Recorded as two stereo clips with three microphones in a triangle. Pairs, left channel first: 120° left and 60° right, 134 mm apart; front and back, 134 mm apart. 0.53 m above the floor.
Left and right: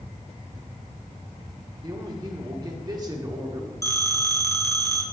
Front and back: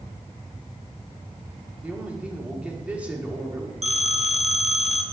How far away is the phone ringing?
About 0.8 m.